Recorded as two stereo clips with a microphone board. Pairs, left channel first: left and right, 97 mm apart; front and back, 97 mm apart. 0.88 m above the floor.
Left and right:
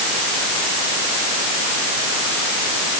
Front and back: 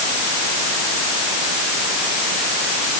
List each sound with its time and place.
Only background noise.